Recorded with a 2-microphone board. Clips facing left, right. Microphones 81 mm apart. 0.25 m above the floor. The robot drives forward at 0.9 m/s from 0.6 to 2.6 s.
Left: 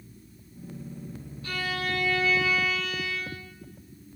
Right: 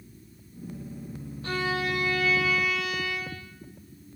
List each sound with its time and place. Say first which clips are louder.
1.4 s a violin: right 3 dB; 35° right (ahead or behind), 0.5 m; by 3.5 s 10° right (ahead or behind), 1.5 m